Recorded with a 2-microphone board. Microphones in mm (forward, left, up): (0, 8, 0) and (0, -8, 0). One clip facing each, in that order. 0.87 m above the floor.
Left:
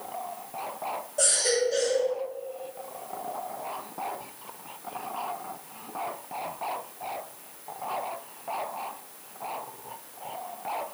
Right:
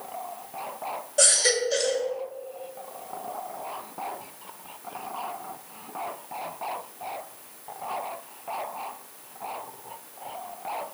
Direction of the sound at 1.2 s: 45° right (ahead or behind).